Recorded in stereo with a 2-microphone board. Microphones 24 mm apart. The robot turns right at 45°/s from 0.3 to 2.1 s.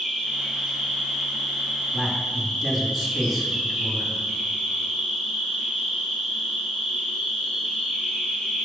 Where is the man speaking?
25° right (ahead or behind), 1.5 m.